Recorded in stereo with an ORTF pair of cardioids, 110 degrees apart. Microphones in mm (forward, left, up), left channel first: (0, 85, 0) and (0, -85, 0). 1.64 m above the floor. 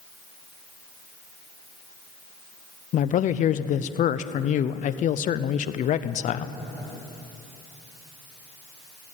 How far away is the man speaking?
About 0.6 m.